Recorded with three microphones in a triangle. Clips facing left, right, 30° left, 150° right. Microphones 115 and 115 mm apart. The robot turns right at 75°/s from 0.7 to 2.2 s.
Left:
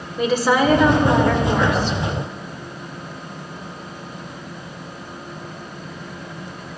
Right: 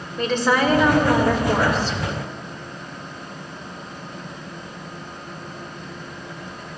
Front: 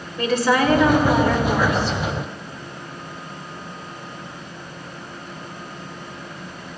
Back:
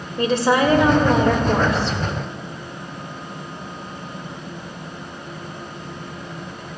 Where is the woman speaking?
170° left, 1.8 m; by 2.0 s 95° right, 1.8 m.